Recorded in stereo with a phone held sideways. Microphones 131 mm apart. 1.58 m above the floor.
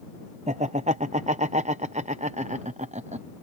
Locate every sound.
0.5 s laughter: 65° right (ahead or behind)